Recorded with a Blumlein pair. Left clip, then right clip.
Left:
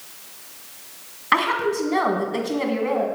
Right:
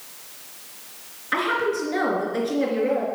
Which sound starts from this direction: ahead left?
A woman speaking, at 1.3 s.